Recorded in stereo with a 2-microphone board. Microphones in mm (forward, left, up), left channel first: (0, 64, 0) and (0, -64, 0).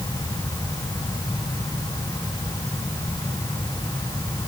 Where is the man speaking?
I don't hear a man speaking.